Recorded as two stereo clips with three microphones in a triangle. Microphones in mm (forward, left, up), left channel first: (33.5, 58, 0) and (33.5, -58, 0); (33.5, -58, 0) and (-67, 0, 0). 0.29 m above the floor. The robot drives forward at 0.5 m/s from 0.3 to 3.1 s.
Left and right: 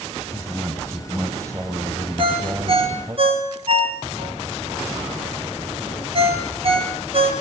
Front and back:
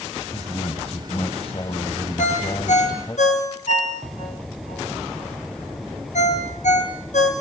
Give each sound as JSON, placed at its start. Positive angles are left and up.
{"t": 0.3, "sound": "a man speaking", "azimuth_deg": -25, "distance_m": 2.5}
{"t": 2.2, "sound": "a ringtone", "azimuth_deg": -45, "distance_m": 3.0}